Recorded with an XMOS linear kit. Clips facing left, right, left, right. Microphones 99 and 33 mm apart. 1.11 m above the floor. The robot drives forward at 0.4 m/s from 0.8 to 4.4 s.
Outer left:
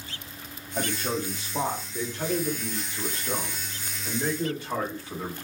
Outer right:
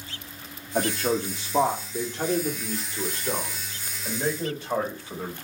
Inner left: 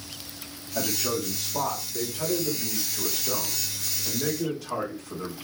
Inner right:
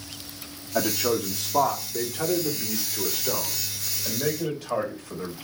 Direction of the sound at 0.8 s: 75° right (ahead or behind).